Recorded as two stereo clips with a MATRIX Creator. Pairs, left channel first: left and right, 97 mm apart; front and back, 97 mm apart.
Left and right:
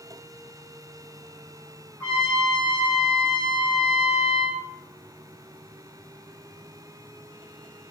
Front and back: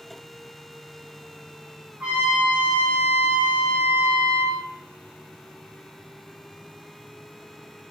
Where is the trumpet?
140° left, 1.0 m.